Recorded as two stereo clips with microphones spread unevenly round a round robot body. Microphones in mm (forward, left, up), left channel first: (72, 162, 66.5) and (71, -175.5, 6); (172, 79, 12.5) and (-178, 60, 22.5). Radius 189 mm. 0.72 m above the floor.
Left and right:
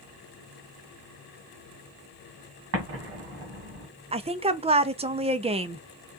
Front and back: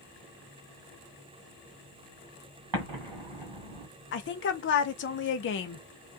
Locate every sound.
2.7 s an explosion: 145° right, 1.5 m
4.1 s a woman speaking: 35° right, 0.6 m